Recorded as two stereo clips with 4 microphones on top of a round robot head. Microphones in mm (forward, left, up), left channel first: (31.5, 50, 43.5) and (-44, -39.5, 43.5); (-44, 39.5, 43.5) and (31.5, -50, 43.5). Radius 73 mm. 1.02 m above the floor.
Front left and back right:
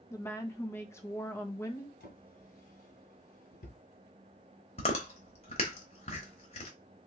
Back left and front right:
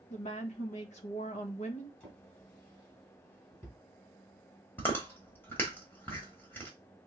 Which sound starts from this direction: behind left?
A woman speaking, at 0.1 s.